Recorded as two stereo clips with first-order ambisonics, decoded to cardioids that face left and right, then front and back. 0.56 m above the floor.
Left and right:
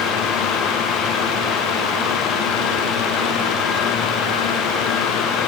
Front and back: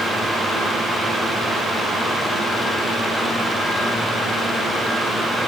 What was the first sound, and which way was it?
Only background noise.